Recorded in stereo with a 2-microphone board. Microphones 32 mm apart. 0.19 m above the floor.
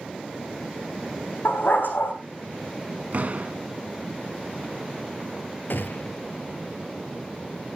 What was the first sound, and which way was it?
A dog barking, 75° left (ahead or behind).